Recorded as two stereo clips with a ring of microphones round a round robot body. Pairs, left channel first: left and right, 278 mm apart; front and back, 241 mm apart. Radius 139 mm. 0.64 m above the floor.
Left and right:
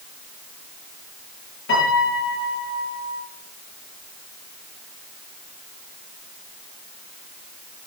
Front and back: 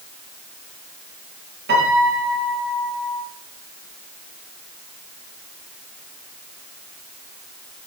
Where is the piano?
140° left, 7.5 m.